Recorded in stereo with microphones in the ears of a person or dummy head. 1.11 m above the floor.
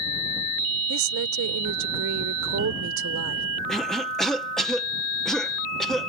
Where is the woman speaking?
80° right.